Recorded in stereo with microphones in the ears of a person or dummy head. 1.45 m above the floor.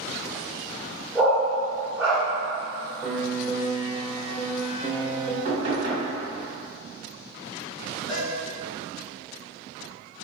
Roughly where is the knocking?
Right.